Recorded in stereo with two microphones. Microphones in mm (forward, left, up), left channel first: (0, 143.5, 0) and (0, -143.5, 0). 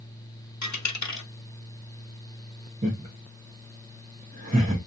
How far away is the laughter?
About 1.0 m.